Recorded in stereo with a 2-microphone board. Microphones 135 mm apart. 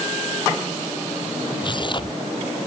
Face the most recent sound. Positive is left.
turn(degrees=35)  # may be behind; listen again after turning